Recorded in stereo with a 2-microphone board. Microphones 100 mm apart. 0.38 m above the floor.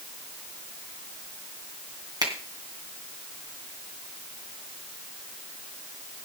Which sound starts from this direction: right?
A finger snap, at 2.2 s.